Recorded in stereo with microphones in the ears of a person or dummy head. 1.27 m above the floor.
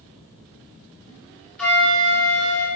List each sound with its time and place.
1.6 s a flute: 10° left (ahead or behind), 0.7 m